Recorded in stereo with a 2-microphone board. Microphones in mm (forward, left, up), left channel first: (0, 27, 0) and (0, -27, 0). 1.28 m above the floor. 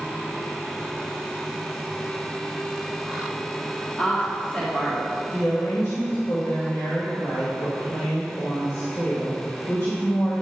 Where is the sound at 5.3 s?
80° left, 1.9 m.